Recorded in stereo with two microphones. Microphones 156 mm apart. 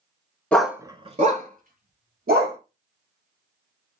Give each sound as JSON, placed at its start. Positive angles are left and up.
{"t": 0.5, "sound": "a dog barking", "side_deg": 10, "distance_m": 0.5}